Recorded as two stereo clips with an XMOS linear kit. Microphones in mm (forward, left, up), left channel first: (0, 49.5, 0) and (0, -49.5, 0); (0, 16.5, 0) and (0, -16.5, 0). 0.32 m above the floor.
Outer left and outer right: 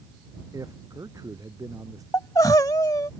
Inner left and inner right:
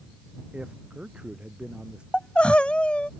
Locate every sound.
0.5 s a man speaking: 35° right (ahead or behind)
2.1 s crying: 40° left (ahead or behind)